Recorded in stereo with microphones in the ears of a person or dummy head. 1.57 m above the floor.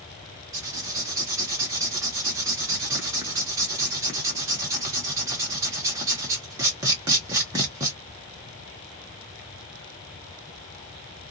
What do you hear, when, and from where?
0.5 s writing: 15° right (ahead or behind), 0.9 m